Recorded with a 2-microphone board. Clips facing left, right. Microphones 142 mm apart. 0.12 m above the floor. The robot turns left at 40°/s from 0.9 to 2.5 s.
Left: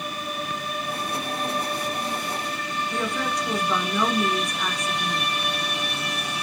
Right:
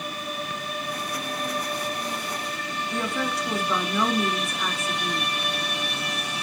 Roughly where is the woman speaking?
Centre.